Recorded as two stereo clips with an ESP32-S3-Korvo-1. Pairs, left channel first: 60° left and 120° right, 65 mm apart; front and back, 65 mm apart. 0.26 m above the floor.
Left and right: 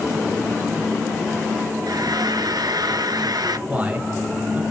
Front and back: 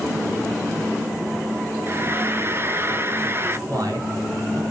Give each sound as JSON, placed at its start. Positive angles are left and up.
{"t": 1.9, "sound": "frying", "azimuth_deg": -125, "distance_m": 0.8}
{"t": 3.7, "sound": "a man speaking", "azimuth_deg": 180, "distance_m": 3.0}